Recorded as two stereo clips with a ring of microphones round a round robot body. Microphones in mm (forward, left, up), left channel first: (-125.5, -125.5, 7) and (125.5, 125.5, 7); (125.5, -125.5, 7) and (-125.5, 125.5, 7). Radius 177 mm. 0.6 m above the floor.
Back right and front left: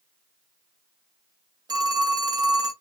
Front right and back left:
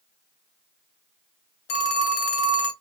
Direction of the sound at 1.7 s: 35° right.